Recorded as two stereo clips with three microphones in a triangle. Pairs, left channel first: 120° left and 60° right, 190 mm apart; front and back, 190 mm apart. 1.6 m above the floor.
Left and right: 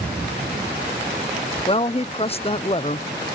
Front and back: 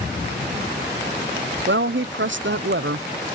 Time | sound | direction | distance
1.7 | a woman speaking | 175° left | ?